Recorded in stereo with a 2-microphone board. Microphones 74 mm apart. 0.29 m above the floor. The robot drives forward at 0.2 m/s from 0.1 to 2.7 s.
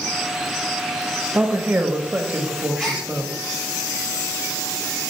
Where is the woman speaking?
20° right (ahead or behind), 0.9 m.